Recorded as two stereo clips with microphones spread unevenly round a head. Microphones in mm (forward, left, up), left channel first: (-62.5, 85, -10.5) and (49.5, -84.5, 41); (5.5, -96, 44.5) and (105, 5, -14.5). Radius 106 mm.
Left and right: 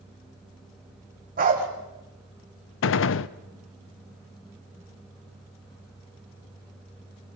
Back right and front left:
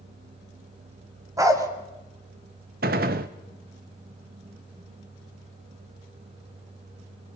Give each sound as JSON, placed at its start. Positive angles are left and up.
{"t": 1.4, "sound": "a dog barking", "azimuth_deg": -35, "distance_m": 2.0}
{"t": 2.8, "sound": "a gunshot", "azimuth_deg": 90, "distance_m": 0.5}